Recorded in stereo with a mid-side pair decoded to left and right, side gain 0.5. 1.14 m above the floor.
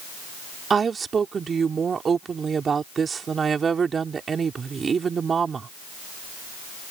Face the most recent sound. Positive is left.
turn(degrees=-40)